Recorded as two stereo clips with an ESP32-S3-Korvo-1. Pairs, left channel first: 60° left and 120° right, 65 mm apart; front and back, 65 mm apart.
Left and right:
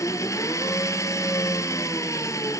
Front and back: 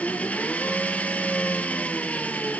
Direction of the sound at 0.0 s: 65° left.